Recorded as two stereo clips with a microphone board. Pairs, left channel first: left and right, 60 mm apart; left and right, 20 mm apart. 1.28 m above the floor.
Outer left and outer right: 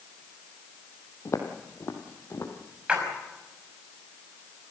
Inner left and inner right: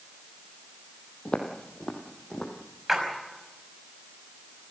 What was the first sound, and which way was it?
Footsteps, 50° left (ahead or behind).